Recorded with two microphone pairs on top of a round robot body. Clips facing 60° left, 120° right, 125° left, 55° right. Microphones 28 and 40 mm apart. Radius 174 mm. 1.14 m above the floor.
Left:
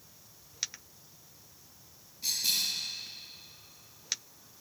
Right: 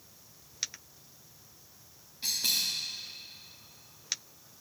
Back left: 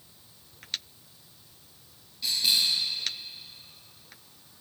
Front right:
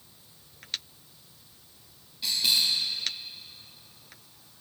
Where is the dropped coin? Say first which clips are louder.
Even, even; 165° right, 0.6 m.